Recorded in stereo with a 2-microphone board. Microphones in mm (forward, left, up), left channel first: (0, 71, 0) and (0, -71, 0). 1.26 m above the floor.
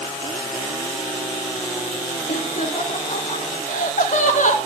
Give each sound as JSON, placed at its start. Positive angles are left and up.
{"t": 2.3, "sound": "laughter", "side_deg": 85, "distance_m": 1.9}